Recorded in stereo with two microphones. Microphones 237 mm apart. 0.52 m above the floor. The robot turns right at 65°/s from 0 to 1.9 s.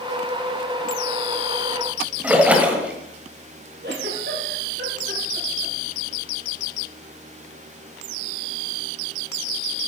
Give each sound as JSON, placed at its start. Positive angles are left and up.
{"t": 2.2, "sound": "a splash", "side_deg": -5, "distance_m": 1.6}
{"t": 3.8, "sound": "a giggle", "side_deg": -50, "distance_m": 4.0}